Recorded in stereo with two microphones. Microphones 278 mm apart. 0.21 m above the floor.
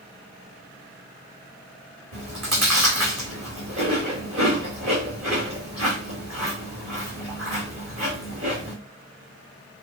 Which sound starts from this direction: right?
Chewing, at 2.1 s.